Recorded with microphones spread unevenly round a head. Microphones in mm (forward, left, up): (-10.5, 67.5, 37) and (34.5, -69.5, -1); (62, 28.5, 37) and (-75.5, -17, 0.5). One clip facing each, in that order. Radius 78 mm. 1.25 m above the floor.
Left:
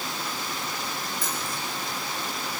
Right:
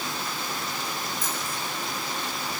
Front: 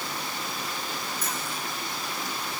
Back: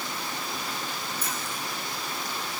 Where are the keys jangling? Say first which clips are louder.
Even, front 1 dB; 135° left, 5 m.